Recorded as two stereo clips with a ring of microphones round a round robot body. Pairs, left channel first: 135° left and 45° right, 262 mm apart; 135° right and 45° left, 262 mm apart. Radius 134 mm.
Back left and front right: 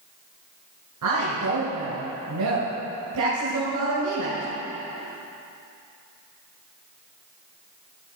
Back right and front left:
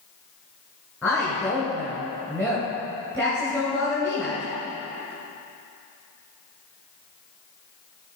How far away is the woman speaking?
About 2 m.